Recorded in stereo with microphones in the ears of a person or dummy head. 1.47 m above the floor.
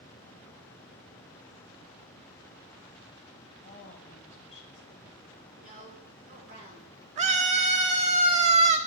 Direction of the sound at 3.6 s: 40° left (ahead or behind).